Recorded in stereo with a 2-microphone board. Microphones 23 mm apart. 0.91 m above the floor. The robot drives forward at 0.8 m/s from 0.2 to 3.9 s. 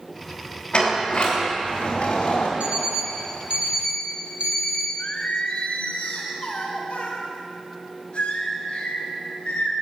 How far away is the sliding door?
About 3 m.